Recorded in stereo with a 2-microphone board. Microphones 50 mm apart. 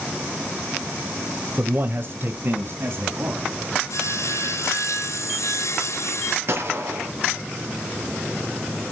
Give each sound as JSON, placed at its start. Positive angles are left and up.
{"t": 1.6, "sound": "a man speaking", "side_deg": -35, "distance_m": 1.1}
{"t": 3.9, "sound": "sawing", "side_deg": 75, "distance_m": 1.7}
{"t": 6.5, "sound": "a gunshot", "side_deg": -50, "distance_m": 2.5}